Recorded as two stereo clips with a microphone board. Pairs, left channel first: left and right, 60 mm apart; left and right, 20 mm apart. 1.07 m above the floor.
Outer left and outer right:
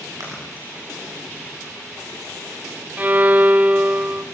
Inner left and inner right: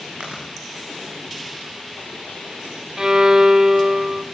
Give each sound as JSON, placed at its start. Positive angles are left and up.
{"t": 0.2, "sound": "chewing", "side_deg": -70, "distance_m": 8.0}
{"t": 3.0, "sound": "a violin", "side_deg": -25, "distance_m": 0.7}